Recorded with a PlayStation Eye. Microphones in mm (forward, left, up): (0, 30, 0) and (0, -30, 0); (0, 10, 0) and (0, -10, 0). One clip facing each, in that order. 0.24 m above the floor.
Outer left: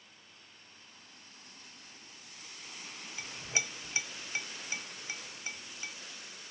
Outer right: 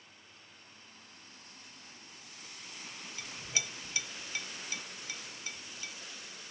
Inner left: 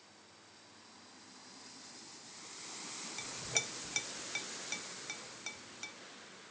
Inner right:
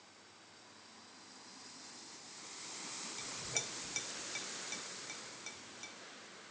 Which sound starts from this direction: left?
A clink, at 3.2 s.